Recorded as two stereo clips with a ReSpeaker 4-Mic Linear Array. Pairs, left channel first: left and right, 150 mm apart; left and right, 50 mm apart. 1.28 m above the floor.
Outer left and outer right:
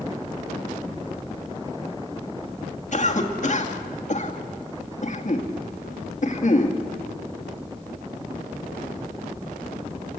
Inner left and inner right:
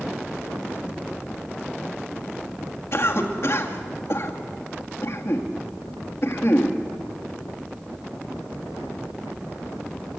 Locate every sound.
2.9 s a cough: 55° left (ahead or behind), 2.0 m